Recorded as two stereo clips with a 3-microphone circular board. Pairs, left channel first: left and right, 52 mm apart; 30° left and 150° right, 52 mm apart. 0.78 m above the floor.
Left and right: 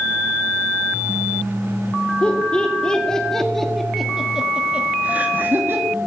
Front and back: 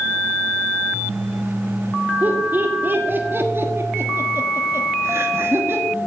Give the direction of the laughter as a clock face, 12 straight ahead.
7 o'clock.